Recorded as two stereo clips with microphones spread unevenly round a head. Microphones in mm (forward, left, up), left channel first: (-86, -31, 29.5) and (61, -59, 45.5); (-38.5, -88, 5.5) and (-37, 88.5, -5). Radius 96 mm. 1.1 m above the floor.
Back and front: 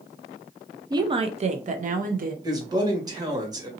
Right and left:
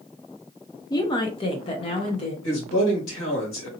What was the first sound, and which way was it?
A woman speaking, 45° right.